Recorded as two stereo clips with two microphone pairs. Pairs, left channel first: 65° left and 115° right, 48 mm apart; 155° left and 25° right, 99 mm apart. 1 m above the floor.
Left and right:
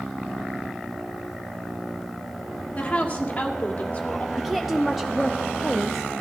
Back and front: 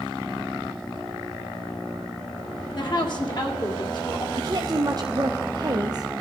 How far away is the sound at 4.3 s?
About 0.7 m.